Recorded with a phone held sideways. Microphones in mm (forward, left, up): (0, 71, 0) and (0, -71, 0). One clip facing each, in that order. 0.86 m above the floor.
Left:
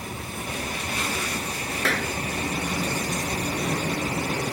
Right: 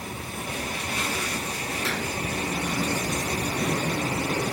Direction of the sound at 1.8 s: 85° left.